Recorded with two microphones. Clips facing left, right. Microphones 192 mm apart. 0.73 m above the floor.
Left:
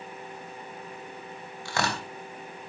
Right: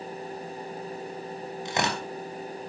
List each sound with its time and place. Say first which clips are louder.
1.6 s tearing paper: right 1 dB; 20° right (ahead or behind), 3 m